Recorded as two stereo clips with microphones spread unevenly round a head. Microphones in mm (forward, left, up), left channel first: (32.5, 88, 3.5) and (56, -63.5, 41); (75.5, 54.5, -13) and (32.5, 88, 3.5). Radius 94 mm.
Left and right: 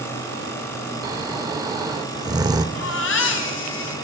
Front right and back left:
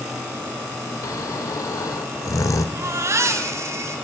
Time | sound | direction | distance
1.0 | snoring | 45° right | 1.4 m
2.8 | a baby crying | 135° left | 3.5 m